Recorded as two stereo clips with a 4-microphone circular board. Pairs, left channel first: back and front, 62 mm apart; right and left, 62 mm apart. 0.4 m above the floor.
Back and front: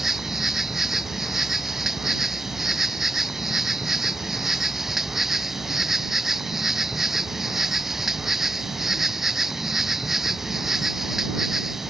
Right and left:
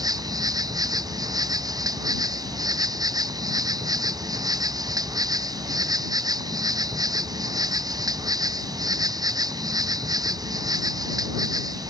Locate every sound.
0.0 s an insect: 85° left